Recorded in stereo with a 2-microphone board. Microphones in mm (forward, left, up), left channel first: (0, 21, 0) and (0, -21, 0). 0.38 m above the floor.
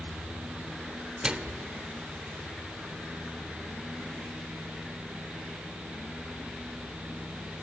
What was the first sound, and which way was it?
A microwave, 20° right (ahead or behind).